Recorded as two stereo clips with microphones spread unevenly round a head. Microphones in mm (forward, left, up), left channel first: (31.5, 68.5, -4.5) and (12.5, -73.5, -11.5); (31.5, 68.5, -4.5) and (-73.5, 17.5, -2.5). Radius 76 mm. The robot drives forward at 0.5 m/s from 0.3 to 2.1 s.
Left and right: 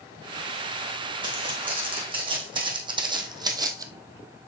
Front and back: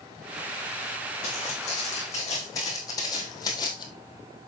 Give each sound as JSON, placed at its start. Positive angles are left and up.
{"t": 1.2, "sound": "footsteps", "azimuth_deg": -40, "distance_m": 4.0}